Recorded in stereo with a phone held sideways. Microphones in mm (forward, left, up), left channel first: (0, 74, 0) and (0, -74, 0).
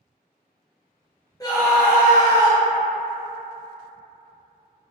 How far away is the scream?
About 0.5 m.